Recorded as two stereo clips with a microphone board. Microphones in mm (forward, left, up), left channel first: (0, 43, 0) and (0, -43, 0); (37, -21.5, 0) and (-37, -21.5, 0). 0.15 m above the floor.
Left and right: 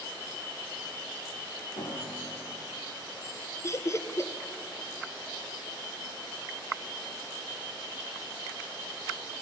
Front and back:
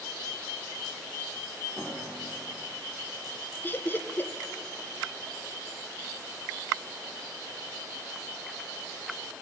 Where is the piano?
105° left, 6 m.